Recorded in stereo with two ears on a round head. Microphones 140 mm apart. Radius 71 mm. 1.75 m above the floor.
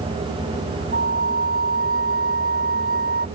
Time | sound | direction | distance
0.9 | a flute | 55° right (ahead or behind) | ?